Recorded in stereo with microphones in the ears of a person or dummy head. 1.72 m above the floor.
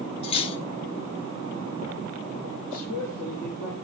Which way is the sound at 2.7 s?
50° left (ahead or behind).